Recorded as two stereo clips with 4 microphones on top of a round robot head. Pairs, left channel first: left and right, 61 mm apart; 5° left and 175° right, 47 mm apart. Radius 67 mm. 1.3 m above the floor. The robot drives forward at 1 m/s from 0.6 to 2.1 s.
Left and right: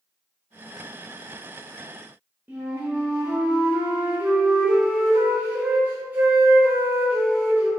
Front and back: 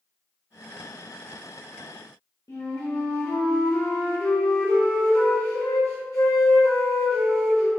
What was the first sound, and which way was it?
A flute, 30° right.